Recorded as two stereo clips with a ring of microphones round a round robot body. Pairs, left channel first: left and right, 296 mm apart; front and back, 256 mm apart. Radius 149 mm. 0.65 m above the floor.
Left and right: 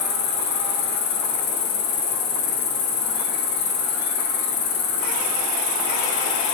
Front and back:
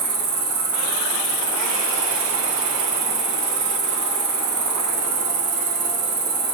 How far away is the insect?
About 0.8 m.